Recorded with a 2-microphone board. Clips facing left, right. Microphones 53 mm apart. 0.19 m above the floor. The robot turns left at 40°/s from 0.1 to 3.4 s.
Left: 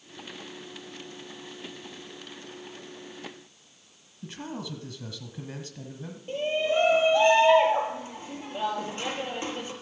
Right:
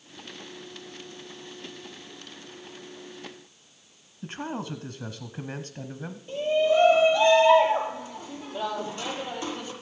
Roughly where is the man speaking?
Right.